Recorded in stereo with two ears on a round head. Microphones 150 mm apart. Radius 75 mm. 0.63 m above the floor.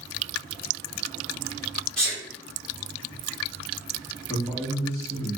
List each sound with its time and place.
2.0 s a sneeze: 5° left (ahead or behind), 1.5 m
4.3 s a man speaking: 20° left (ahead or behind), 1.3 m